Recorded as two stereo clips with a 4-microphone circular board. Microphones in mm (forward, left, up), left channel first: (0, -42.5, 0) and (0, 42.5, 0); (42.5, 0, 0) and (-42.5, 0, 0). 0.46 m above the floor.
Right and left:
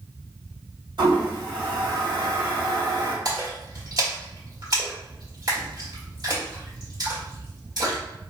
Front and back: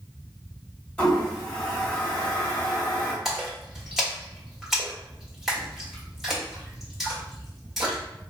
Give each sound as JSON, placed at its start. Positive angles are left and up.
{"t": 1.0, "sound": "a toilet flushing", "azimuth_deg": 75, "distance_m": 1.9}
{"t": 3.2, "sound": "a splash", "azimuth_deg": 90, "distance_m": 1.5}